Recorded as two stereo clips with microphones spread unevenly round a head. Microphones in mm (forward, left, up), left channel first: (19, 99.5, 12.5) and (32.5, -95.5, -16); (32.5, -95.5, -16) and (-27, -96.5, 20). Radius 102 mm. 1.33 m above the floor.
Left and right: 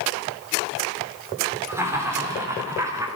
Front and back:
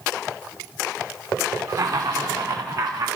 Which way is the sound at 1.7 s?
165° right.